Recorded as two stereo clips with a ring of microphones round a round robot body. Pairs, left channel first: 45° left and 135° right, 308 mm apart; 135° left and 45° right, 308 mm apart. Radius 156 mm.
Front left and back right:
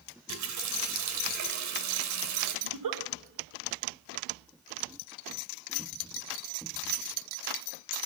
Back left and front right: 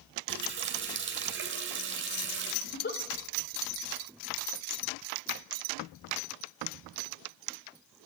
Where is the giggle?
165° right, 1.8 m.